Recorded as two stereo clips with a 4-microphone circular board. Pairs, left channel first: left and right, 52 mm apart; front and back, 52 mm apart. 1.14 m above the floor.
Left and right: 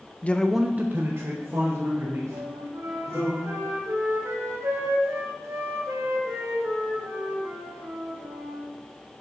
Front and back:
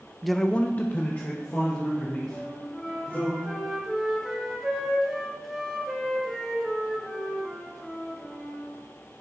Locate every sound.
0.2 s a man speaking: 95° left, 0.7 m; by 3.3 s 60° right, 4.5 m
2.3 s a flute: 90° right, 2 m